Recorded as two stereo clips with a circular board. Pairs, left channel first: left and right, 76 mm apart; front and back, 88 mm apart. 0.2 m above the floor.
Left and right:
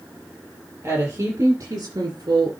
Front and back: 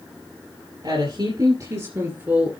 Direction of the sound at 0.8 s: 150° right.